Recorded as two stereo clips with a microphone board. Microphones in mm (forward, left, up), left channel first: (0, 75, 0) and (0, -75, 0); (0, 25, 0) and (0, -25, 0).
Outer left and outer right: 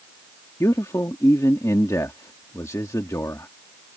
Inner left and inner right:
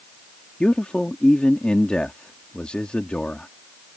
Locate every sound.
0.6 s a man speaking: 20° left (ahead or behind)